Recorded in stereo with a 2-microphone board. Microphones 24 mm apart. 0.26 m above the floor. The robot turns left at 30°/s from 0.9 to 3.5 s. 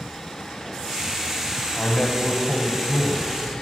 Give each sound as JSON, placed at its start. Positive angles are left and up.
{"t": 1.8, "sound": "a man speaking", "azimuth_deg": 135, "distance_m": 1.3}